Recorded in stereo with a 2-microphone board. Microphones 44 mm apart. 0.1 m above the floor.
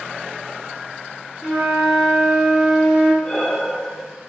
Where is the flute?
15° right (ahead or behind), 1.9 m.